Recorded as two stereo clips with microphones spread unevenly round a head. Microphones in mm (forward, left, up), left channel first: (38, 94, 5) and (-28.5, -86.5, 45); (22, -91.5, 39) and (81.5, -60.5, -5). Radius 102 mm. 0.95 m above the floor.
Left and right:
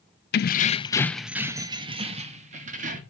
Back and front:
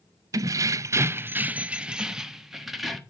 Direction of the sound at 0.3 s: 40° left.